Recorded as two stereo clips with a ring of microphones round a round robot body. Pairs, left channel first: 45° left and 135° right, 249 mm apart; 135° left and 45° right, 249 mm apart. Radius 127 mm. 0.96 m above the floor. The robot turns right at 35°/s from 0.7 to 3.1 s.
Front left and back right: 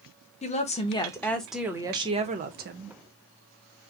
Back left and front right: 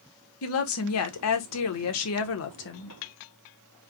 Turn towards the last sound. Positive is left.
turn(degrees=-170)